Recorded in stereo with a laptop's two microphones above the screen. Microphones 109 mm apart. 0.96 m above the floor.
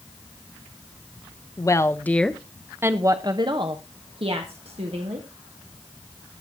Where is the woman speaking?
30° left (ahead or behind), 1.0 m; by 5.3 s 65° right (ahead or behind), 2 m.